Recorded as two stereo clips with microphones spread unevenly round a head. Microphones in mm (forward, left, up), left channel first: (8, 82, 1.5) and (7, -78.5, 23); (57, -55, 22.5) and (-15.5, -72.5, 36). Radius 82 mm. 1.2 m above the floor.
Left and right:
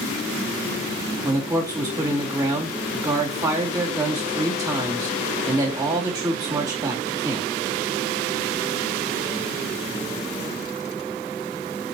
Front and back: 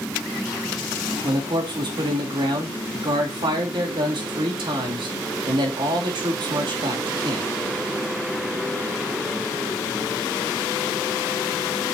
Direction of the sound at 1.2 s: 160° right.